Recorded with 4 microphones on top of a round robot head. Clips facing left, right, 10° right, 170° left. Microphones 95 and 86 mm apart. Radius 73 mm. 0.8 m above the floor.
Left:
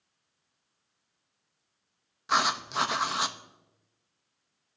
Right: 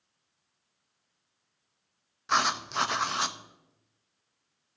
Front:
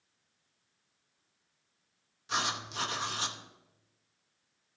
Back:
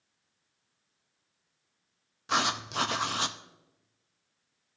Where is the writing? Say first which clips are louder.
Even, back 5 dB; 175° left, 0.6 m.